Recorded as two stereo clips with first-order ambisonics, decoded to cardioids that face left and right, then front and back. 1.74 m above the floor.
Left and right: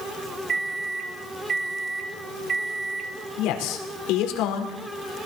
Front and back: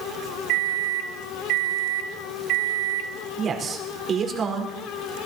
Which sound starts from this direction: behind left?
A man speaking, at 3.4 s.